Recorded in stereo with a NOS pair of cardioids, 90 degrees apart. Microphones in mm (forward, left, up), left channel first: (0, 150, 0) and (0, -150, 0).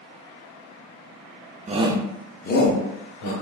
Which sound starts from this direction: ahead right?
A shout, at 1.7 s.